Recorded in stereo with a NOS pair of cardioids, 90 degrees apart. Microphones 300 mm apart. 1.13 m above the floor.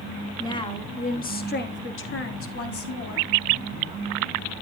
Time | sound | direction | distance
0.4 | a woman speaking | 10° left | 1.5 m